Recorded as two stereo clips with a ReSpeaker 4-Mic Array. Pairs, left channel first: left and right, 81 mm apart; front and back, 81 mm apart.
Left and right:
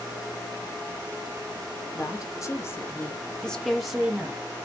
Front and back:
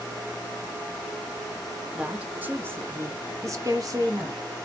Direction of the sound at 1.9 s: 110° left.